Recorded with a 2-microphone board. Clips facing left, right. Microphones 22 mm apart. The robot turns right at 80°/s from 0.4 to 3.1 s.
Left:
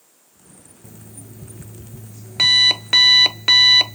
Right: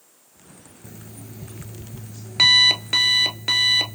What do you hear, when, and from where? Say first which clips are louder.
0.8 s an alarm clock: right 1 dB; 135° right, 0.7 m; by 4.0 s 45° left, 0.7 m